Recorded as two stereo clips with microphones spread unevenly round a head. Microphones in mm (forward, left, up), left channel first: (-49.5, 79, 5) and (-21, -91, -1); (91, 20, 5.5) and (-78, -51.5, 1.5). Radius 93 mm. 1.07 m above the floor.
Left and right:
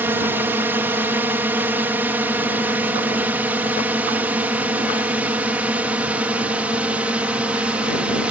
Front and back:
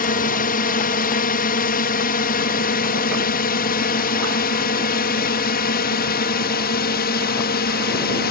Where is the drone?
5° right; by 8.3 s straight ahead.